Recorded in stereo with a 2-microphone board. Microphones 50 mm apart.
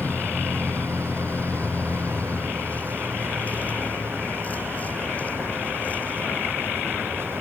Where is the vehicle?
35° left (ahead or behind); by 7.4 s 30° left (ahead or behind).